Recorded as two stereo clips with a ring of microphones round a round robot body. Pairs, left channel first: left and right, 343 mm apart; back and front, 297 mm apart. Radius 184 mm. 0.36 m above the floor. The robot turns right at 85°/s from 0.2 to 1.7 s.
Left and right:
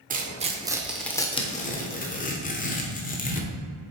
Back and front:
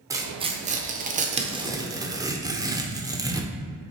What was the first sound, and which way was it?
Tearing paper, 65° right.